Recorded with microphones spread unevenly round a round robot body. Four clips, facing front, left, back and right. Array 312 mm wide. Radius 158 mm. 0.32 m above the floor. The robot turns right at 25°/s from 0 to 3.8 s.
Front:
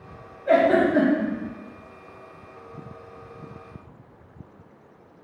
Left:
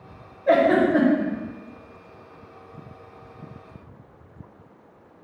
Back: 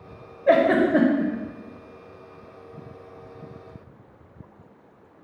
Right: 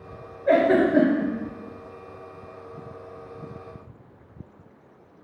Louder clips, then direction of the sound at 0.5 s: Left 1 dB, even; 165° right.